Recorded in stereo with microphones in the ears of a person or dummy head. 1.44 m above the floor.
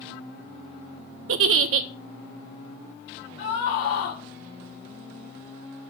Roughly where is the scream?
Left.